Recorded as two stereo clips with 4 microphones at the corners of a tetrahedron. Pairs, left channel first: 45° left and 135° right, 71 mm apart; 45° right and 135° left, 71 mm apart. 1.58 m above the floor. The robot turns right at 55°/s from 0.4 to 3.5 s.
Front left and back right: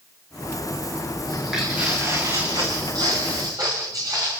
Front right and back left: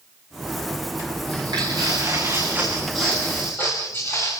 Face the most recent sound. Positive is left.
turn(degrees=-100)